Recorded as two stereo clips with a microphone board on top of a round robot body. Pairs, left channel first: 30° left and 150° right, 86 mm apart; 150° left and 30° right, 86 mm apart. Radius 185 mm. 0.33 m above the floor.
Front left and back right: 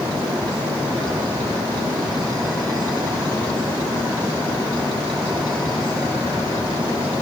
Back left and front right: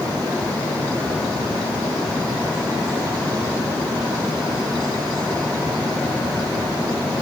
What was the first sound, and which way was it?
Only background noise.